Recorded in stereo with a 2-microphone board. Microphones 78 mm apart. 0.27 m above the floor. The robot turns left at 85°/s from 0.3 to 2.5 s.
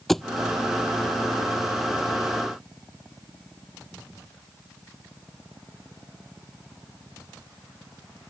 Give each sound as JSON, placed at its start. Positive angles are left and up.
{"t": 0.1, "sound": "a thud", "side_deg": 5}